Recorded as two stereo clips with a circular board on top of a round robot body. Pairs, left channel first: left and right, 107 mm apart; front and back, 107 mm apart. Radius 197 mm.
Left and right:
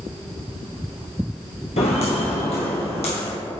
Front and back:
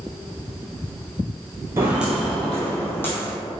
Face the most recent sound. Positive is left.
turn(degrees=70)